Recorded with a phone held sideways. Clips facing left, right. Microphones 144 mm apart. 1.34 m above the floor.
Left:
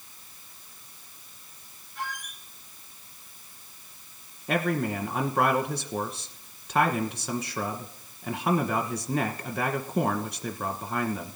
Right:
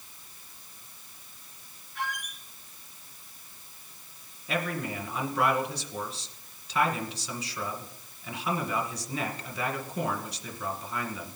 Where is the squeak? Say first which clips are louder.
Right 1 dB; 70° right (ahead or behind), 3 m.